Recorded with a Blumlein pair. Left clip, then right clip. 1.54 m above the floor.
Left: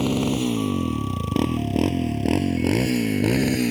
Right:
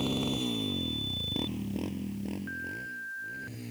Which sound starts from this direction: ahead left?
A motorcycle, at 0.0 s.